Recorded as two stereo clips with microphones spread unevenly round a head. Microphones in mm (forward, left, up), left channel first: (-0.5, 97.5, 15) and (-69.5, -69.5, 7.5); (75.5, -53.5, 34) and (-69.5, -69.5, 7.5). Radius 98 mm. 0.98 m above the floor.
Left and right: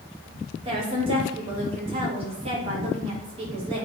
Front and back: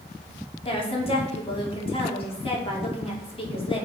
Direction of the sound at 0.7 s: 50° right.